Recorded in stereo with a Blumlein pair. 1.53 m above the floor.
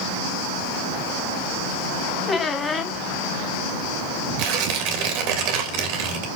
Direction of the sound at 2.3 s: 15° left.